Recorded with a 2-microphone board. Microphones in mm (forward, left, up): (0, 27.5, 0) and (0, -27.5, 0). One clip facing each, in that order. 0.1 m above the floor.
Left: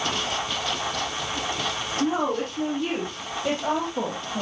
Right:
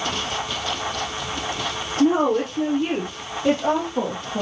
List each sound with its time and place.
2.0 s a woman speaking: 40° right (ahead or behind), 3 m; by 4.4 s 15° right (ahead or behind), 3.5 m